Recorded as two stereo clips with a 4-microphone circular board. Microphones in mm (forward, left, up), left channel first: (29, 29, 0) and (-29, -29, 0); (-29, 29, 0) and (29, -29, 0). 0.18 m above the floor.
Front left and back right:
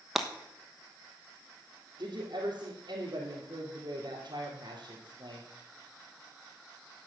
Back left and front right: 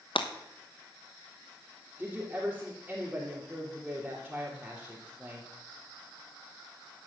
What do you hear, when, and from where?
0.1 s breaking glass: 135° left, 1.2 m
2.0 s a woman speaking: 115° right, 3 m